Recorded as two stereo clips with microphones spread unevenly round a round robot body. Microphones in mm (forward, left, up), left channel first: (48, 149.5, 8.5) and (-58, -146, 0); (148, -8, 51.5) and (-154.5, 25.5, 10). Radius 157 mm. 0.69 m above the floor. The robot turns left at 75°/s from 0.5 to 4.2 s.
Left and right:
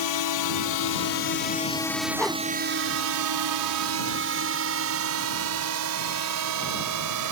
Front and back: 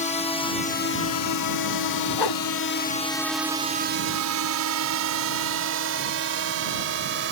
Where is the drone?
60° left; by 7.3 s 135° right.